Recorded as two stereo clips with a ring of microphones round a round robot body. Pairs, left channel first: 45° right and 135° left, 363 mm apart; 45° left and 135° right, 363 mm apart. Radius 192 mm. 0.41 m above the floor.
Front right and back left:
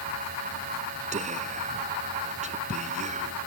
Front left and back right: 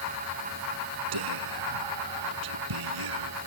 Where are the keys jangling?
No keys jangling in this recording.